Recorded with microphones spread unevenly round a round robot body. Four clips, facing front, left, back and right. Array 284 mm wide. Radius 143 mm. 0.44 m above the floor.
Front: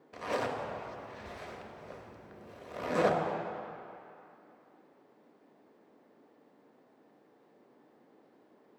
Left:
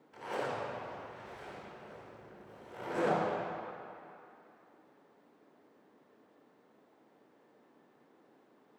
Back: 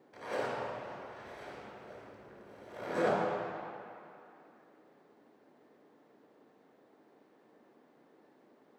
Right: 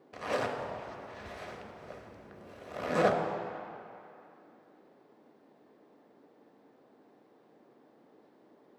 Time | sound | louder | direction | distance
0.1 | a zipper | right 4 dB, front 2 dB | 60° right | 0.8 m